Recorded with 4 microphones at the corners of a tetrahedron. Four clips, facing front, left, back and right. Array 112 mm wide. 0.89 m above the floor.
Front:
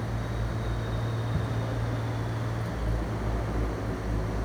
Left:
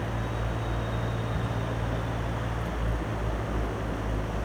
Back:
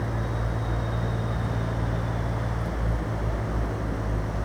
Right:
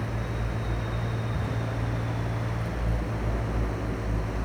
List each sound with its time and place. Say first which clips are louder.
1.3 s ticking: even, front 1 dB; 15° left, 4.5 m